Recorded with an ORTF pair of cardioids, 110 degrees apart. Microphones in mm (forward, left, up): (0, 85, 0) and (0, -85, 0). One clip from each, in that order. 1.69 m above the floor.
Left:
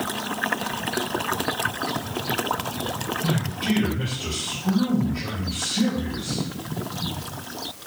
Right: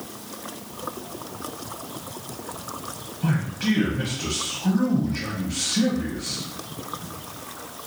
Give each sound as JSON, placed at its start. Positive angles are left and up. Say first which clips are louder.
{"t": 3.2, "sound": "a man speaking", "louder": "left 1 dB", "azimuth_deg": -65, "distance_m": 1.0}